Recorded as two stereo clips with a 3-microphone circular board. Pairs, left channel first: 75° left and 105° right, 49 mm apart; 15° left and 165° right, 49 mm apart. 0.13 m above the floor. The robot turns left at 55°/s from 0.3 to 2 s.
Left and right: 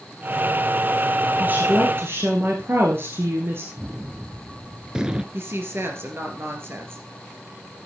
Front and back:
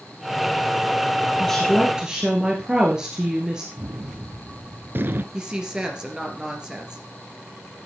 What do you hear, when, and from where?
1.4 s a woman speaking: 60° right, 1.8 m; by 3.7 s 95° right, 1.8 m
3.8 s a gunshot: 170° right, 0.8 m
5.3 s a woman speaking: 95° right, 2.5 m